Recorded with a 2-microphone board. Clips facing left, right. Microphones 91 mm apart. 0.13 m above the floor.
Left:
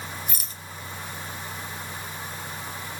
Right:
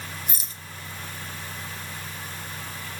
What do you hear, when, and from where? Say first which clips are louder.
0.3 s a rattle: left 1 dB; 25° right (ahead or behind), 1.2 m